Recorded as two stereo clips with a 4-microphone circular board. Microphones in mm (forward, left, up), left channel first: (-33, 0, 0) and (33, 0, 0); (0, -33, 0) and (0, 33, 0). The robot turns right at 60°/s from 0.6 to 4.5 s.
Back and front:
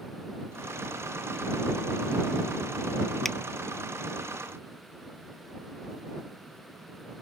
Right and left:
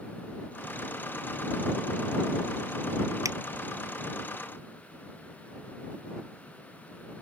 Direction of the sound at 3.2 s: 95° left.